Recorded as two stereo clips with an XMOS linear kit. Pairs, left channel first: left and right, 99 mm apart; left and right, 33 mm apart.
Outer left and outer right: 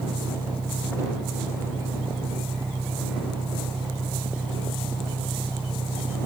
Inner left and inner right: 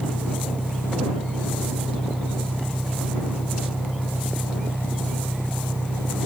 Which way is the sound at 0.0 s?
60° right (ahead or behind).